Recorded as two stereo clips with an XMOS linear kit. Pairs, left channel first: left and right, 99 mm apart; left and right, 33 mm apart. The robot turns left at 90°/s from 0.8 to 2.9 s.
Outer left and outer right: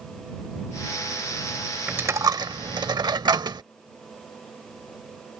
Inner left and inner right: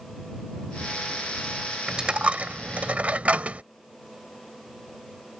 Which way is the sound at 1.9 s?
15° right (ahead or behind).